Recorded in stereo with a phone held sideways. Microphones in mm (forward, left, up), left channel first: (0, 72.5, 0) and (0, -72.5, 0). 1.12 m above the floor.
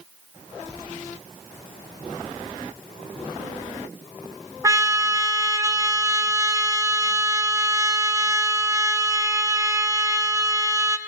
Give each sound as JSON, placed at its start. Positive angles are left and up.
{"t": 4.6, "sound": "a trumpet", "side_deg": -20, "distance_m": 1.1}